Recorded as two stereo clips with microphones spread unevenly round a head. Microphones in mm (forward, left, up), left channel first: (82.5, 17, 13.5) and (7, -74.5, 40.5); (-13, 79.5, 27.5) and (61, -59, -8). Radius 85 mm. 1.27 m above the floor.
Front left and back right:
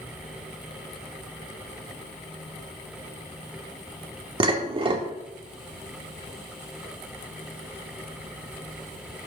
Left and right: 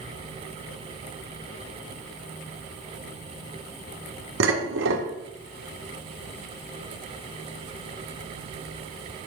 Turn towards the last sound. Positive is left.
turn(degrees=-80)